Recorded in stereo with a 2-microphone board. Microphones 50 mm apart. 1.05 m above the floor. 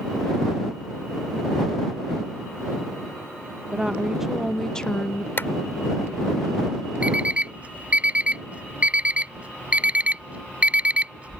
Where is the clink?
No clink in this recording.